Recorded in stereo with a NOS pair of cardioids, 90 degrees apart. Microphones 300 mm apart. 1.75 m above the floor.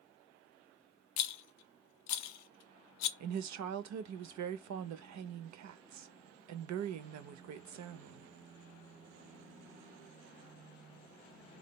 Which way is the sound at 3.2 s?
70° right.